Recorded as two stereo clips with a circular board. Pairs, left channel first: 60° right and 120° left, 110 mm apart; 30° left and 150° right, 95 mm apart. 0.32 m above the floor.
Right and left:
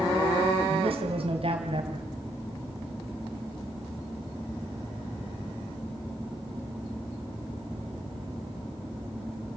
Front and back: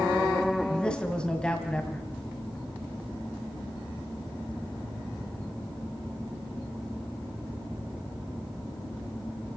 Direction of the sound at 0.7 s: 110° left.